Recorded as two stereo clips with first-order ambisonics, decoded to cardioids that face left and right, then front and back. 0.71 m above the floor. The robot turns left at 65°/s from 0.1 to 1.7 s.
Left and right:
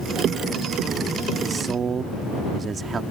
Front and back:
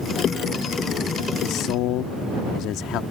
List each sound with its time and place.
1.4 s a man speaking: 5° right; by 3.0 s 25° right